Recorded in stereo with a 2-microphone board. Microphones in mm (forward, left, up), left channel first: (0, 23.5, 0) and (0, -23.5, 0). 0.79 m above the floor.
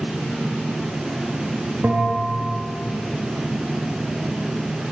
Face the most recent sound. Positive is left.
turn(degrees=-35)  # may be behind; listen again after turning